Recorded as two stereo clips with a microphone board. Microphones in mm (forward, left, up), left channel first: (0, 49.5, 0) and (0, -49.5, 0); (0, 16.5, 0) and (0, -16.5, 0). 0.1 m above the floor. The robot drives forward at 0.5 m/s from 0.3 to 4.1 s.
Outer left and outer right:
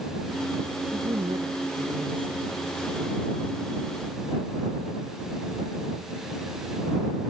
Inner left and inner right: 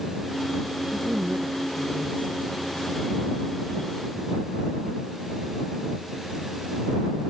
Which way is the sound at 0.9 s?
60° right (ahead or behind).